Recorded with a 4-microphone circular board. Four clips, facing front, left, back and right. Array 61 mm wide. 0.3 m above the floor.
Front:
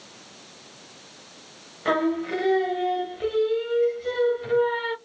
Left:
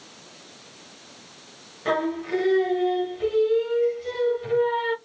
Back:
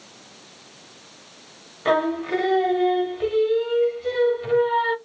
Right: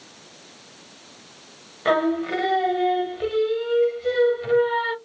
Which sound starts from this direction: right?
Singing, at 1.9 s.